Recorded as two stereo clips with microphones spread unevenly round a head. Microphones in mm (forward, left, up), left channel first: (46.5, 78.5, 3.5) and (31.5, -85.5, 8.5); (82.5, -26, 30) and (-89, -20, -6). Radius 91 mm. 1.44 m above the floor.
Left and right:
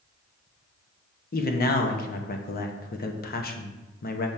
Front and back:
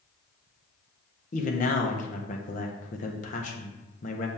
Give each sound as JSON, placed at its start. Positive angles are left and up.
{"t": 1.3, "sound": "a man speaking", "azimuth_deg": 50, "distance_m": 1.1}